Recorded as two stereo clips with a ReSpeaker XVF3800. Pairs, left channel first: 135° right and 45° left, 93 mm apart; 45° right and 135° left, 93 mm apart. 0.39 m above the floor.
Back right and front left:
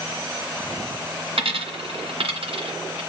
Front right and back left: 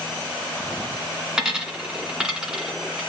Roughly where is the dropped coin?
Ahead left.